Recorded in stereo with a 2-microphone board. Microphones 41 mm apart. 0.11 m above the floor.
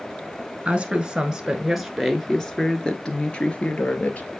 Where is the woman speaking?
25° right (ahead or behind), 1.6 m; by 4.3 s 35° left (ahead or behind), 2 m.